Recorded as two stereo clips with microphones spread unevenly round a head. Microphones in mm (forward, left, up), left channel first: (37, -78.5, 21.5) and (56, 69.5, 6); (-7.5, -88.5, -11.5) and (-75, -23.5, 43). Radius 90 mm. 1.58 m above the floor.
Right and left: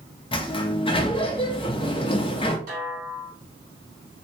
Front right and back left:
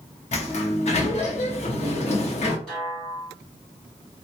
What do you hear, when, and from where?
0.3 s a sliding door: 65° right, 0.6 m
2.7 s a snare drum: 75° left, 1.7 m